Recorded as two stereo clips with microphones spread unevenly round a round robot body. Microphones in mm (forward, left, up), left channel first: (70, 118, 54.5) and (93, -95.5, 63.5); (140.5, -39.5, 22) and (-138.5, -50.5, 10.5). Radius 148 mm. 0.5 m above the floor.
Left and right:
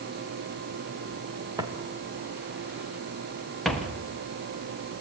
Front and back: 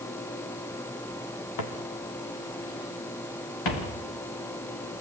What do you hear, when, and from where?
1.6 s footsteps: 10° right, 4.5 m; by 4.0 s 10° left, 6 m